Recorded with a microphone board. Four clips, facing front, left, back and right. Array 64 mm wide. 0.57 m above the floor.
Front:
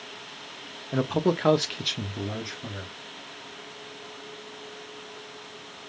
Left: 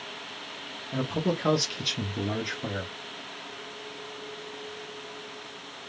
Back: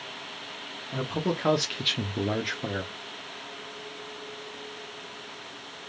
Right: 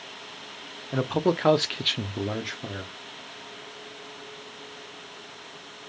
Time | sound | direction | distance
0.9 | a man speaking | 50° right | 0.9 m